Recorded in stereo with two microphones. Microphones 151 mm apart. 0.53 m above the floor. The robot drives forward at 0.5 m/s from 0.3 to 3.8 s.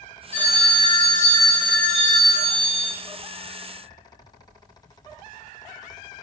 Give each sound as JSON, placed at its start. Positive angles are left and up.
{"t": 0.3, "sound": "a phone ringing", "side_deg": 40, "distance_m": 2.0}